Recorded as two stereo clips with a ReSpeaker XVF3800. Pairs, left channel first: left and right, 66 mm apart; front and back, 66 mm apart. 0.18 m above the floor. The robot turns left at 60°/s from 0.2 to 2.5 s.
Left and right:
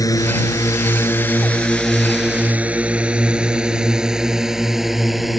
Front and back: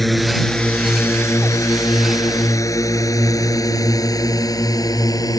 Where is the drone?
90° left; by 5.4 s straight ahead.